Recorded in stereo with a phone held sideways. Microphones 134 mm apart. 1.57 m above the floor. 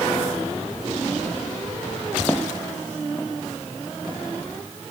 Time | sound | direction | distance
2.3 | footsteps | 15° left (ahead or behind) | ?